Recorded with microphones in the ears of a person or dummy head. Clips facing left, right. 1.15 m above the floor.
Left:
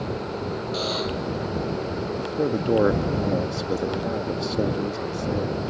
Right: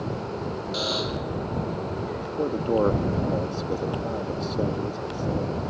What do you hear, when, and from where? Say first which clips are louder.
0.7 s a buzzer: left 1 dB; 20° right (ahead or behind)
2.2 s a man speaking: left 3 dB; 15° left (ahead or behind)